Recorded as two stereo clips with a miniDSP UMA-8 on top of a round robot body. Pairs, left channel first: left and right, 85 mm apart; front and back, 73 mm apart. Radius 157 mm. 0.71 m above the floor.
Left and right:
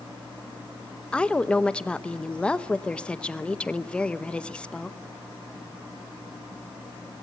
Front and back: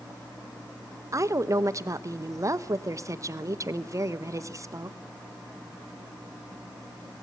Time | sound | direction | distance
1.1 | a woman speaking | 165° left | 1.1 m